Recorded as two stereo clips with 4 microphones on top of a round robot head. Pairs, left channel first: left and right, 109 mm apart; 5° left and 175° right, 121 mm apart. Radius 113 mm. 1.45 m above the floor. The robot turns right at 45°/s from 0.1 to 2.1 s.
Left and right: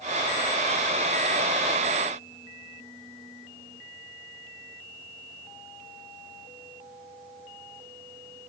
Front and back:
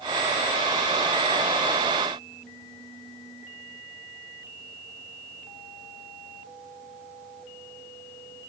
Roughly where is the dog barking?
No dog barking in this recording.